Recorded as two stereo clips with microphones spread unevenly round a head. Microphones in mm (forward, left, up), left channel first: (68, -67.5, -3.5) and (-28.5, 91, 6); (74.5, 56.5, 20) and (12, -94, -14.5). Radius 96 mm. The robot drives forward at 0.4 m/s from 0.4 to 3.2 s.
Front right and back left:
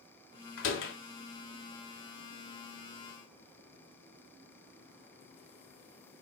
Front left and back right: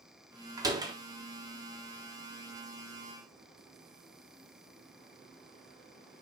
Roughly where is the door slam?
Ahead right.